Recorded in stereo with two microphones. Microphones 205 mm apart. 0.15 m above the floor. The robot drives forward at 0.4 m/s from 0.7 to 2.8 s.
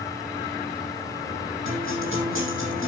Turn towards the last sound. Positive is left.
turn(degrees=-75)  # may be behind; listen again after turning